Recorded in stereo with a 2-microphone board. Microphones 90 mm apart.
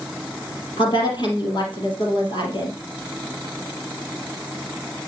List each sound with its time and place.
0.8 s a woman speaking: 55° left (ahead or behind), 3 m